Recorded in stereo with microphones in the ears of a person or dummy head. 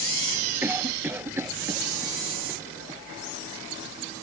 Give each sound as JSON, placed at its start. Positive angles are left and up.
{"t": 0.6, "sound": "a cough", "side_deg": -5}